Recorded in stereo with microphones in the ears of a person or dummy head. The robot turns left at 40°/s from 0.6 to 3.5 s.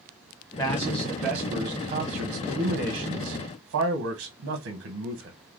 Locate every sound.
0.6 s a man speaking: 5° left, 1.2 m; by 5.4 s 110° right, 1.2 m